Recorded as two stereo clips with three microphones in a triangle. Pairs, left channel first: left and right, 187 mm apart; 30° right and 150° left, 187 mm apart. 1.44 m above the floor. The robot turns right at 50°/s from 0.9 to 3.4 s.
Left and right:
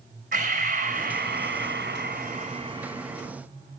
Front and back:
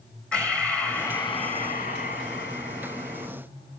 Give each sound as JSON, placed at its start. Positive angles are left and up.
{"t": 0.3, "sound": "breathing", "azimuth_deg": -115, "distance_m": 4.0}